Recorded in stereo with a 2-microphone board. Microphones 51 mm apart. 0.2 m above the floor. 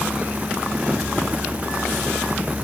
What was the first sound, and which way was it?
Only background noise.